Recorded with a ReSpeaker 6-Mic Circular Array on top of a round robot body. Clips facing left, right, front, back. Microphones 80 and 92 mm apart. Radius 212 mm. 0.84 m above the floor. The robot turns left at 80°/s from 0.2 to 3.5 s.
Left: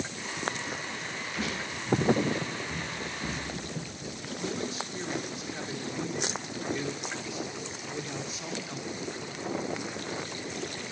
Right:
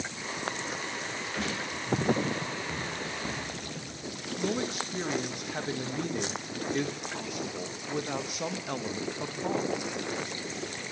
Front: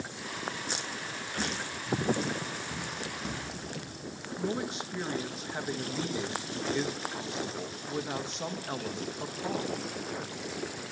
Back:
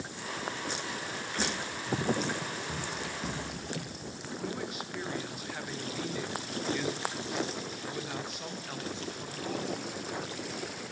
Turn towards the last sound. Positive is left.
turn(degrees=-60)